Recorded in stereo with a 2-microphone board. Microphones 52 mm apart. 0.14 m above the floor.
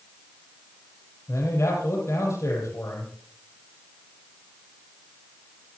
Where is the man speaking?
70° left (ahead or behind), 5.5 m.